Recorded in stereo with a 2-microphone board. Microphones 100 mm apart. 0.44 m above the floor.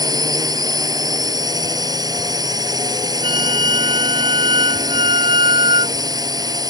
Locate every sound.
0.0 s a drone: 40° right (ahead or behind)
3.2 s a flute: 55° right (ahead or behind)